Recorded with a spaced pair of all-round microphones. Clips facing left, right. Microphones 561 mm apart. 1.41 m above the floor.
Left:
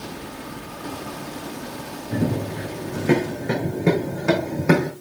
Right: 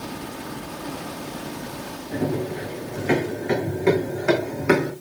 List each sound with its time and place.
2.1 s running footsteps: 65° left (ahead or behind), 6 m; by 4.9 s 60° left (ahead or behind), 3 m